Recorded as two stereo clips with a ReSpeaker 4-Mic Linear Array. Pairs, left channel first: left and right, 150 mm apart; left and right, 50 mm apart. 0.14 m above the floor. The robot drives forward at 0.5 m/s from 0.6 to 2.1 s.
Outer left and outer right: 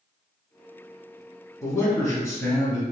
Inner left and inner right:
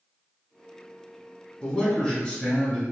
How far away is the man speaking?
About 1.1 m.